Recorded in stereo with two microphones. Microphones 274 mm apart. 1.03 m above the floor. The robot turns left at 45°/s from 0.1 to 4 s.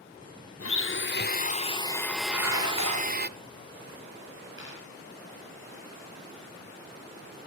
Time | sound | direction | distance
0.6 | a blender | 75° left | 0.6 m
2.3 | dishes clattering | 60° right | 3 m
4.6 | a dropped coin | 45° right (ahead or behind) | 9.5 m